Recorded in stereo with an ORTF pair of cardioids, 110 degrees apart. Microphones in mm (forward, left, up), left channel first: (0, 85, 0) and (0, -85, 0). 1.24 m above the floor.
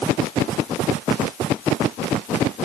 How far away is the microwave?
I don't hear a microwave.